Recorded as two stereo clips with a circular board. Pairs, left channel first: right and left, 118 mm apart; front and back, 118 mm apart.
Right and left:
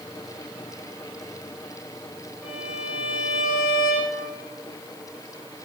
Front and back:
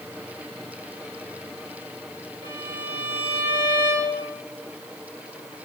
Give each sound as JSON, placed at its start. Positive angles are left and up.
{"t": 2.4, "sound": "a violin", "azimuth_deg": 180, "distance_m": 3.0}